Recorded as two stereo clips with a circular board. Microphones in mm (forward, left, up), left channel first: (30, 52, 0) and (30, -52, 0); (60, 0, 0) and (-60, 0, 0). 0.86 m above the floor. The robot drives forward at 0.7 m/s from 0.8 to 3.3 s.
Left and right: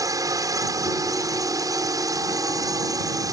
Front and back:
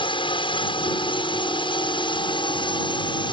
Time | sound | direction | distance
0.0 | a drone | 40° right | ?